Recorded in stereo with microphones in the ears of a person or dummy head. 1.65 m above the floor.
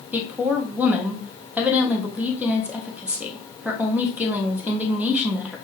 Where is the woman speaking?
Centre (ahead or behind), 1.0 m.